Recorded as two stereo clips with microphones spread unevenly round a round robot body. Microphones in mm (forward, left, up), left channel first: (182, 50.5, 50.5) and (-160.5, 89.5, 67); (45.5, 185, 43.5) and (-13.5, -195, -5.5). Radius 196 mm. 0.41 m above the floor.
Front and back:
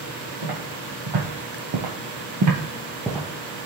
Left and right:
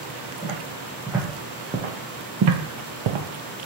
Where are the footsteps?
170° left, 1.6 m; by 3.7 s 70° right, 0.7 m.